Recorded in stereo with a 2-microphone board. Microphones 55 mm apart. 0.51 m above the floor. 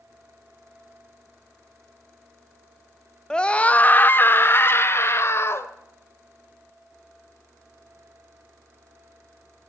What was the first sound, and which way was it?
A scream, 15° left (ahead or behind).